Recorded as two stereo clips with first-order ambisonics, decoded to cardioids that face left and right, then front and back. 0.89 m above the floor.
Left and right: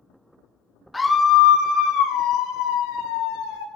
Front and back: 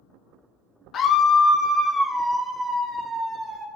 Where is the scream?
15° left, 0.6 m; by 3.6 s 100° left, 1.8 m.